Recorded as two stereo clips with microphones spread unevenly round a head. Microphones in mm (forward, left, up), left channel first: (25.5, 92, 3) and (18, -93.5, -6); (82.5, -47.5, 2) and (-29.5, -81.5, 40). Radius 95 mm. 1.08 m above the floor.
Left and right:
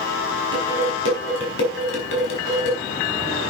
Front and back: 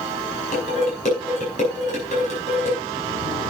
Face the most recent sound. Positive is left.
turn(degrees=65)